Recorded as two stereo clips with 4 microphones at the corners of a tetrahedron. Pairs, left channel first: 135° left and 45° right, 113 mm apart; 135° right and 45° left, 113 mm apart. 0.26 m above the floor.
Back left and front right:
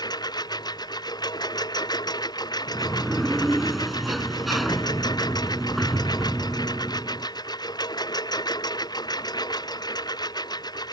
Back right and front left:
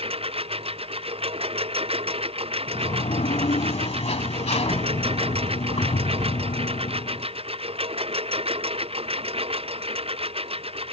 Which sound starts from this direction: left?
A lawn mower, at 0.0 s.